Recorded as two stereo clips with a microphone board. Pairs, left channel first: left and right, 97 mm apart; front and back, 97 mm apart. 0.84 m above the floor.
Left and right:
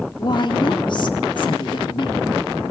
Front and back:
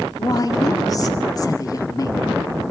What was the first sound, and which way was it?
A woman speaking, 50° left.